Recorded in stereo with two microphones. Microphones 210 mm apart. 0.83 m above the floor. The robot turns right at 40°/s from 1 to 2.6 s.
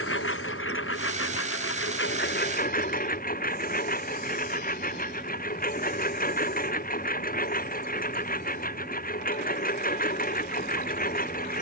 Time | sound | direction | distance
0.0 | a lawn mower | 75° left | ?